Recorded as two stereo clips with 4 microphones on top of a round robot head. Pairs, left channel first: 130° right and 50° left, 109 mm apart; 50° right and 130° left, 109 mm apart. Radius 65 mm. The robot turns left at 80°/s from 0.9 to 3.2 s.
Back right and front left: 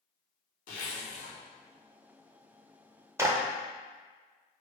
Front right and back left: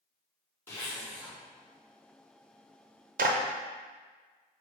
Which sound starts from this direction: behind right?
A zipper, at 0.7 s.